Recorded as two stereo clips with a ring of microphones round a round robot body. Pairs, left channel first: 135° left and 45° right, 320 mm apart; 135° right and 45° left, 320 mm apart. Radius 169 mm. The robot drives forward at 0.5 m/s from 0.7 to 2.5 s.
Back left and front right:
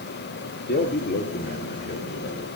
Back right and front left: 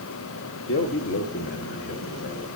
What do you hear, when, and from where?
0.7 s a man speaking: 175° right, 1.7 m